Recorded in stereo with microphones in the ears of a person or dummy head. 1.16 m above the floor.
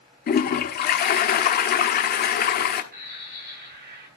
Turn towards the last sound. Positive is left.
turn(degrees=-65)  # may be behind; listen again after turning